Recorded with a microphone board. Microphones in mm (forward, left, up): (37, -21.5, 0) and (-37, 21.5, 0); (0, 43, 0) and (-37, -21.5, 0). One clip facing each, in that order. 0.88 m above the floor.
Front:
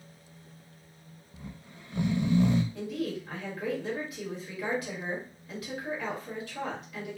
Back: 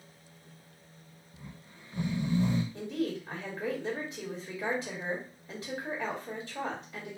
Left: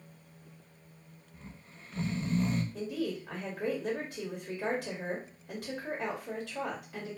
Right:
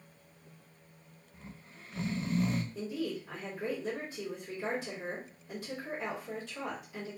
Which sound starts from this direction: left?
A woman speaking, at 2.7 s.